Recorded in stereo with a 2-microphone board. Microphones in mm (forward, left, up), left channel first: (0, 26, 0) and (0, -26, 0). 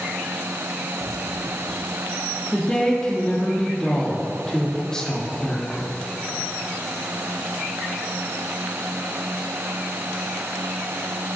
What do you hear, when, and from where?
2.5 s a woman speaking: 15° left (ahead or behind), 5.5 m